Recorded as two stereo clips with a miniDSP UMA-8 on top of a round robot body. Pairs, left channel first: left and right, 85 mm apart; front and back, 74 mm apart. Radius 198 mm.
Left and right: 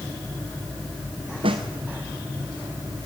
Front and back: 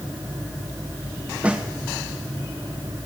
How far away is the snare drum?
About 0.8 m.